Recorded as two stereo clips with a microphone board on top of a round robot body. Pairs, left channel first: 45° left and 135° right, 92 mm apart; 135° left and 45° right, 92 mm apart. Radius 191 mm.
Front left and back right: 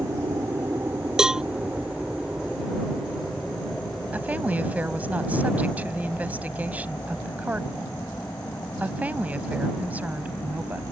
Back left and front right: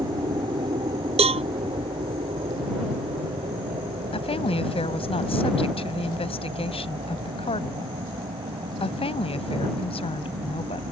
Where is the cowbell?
50° right.